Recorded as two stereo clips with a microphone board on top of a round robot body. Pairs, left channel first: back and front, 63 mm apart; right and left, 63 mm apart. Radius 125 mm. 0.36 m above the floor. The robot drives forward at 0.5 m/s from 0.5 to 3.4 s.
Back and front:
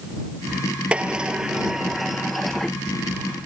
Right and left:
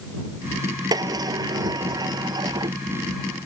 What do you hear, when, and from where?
0.9 s a sliding door: 75° left; by 2.8 s 95° left